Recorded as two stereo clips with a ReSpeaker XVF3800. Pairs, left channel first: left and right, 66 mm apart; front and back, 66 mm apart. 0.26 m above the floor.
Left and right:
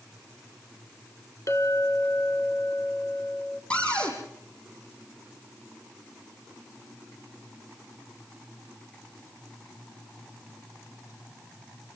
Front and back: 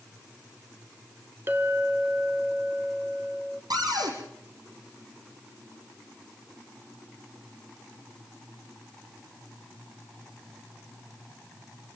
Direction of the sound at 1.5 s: 125° left.